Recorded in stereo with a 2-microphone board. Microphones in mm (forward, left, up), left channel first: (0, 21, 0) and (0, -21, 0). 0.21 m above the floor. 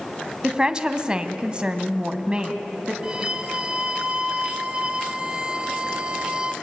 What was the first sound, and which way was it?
A woman speaking, 15° right (ahead or behind).